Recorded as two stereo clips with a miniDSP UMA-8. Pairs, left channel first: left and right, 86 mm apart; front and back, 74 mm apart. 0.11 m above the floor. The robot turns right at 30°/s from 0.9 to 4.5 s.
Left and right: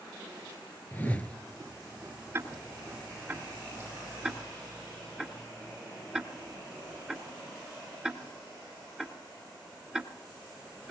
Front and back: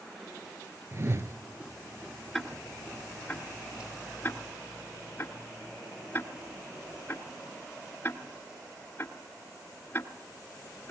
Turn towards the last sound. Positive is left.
turn(degrees=-20)